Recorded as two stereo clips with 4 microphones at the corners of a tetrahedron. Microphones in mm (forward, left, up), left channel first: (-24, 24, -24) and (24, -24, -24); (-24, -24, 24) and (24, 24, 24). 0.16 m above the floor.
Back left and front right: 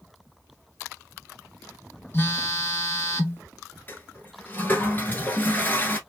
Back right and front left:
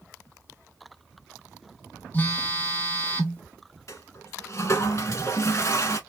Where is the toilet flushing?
170° right, 1.0 m.